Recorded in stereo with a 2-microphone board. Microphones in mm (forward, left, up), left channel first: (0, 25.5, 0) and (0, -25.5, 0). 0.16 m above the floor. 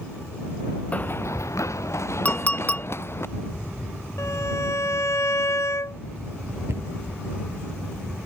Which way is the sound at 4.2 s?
70° left (ahead or behind).